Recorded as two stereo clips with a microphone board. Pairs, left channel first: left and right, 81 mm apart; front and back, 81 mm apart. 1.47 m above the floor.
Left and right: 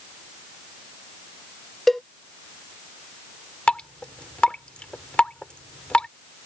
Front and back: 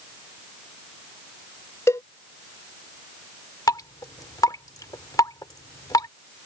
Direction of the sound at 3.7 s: 15° left.